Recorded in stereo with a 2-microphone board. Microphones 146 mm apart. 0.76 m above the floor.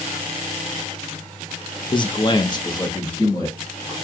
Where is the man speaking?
35° left (ahead or behind), 0.7 m; by 3.9 s 25° left (ahead or behind), 1.8 m.